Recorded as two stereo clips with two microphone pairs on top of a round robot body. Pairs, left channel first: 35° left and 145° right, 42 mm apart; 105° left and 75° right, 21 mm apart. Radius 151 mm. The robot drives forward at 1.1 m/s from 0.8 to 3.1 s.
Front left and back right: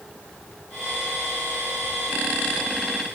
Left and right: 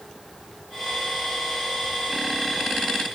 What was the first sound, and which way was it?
Only background noise.